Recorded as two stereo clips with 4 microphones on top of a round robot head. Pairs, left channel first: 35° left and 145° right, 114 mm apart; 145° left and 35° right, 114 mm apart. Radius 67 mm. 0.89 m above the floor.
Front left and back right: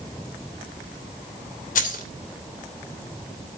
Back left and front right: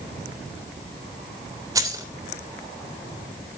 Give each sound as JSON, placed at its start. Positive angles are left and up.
{"t": 1.8, "sound": "keys jangling", "azimuth_deg": 30, "distance_m": 2.5}